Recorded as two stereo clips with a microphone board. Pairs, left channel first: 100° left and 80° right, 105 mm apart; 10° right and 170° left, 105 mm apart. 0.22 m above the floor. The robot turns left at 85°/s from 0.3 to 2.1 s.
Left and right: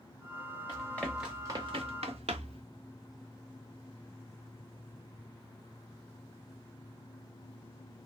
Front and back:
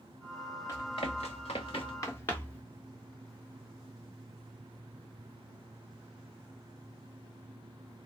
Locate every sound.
0.7 s running footsteps: 50° left, 3 m; by 2.6 s 85° right, 1.0 m